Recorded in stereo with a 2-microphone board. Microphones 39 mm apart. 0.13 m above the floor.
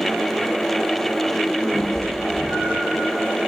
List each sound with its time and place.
1.7 s a cat meowing: 75° right (ahead or behind), 3 m